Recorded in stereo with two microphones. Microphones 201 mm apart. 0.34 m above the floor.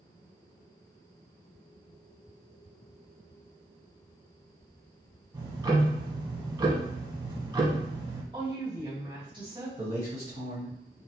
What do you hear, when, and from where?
5.3 s ticking: 20° right (ahead or behind), 0.6 m
8.3 s a woman speaking: 25° right (ahead or behind), 1.4 m
9.8 s a man speaking: 40° right (ahead or behind), 1.9 m